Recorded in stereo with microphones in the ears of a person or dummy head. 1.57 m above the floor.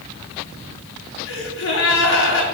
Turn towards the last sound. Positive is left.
turn(degrees=75)  # may be behind; listen again after turning